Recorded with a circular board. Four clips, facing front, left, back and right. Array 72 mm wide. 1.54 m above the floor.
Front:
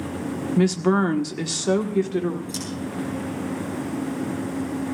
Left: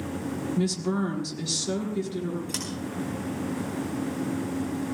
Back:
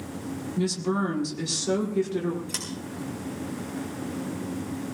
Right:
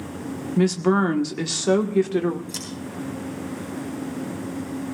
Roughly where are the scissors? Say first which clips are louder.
Left 1 dB, front 5 dB; behind left.